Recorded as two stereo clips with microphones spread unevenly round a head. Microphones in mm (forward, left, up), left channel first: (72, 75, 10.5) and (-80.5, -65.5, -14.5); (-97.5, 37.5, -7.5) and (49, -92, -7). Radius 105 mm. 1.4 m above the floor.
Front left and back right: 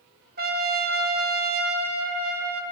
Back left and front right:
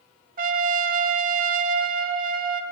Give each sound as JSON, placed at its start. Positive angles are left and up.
{"t": 0.4, "sound": "a trumpet", "azimuth_deg": -90, "distance_m": 1.9}